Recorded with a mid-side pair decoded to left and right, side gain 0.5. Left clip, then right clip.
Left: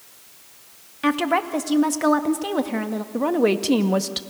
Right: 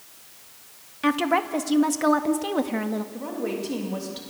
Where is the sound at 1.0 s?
10° left, 2 m.